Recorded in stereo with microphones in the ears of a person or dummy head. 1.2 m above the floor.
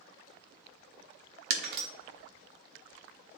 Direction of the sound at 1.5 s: 60° right (ahead or behind).